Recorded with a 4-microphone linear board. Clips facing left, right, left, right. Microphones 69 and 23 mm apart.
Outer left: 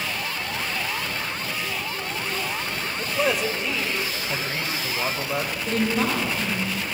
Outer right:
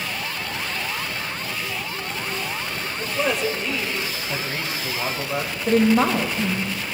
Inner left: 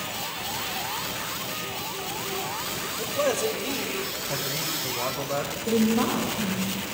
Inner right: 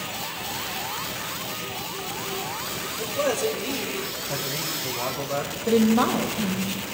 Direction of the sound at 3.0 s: 5° left (ahead or behind).